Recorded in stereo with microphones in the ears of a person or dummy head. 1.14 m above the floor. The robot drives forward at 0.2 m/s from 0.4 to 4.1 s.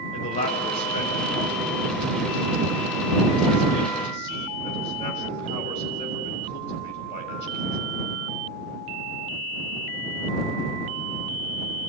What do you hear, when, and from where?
0.1 s a man speaking: 35° left (ahead or behind), 6 m; by 7.8 s 30° left (ahead or behind), 7 m